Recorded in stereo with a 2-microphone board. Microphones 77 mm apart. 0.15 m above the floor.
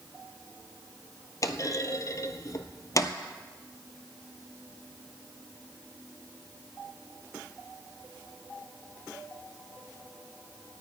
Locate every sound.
1.4 s a clunk: 45° left (ahead or behind), 0.7 m